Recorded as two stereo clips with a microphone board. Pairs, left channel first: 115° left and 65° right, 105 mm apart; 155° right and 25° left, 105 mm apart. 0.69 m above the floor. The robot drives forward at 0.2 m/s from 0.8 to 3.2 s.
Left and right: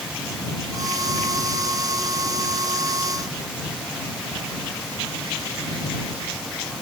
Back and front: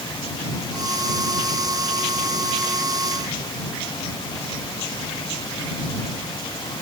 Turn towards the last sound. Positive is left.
No sound to turn to.